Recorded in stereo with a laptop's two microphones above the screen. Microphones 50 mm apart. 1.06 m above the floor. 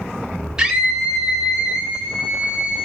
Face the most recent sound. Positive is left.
turn(degrees=-15)  # may be behind; listen again after turning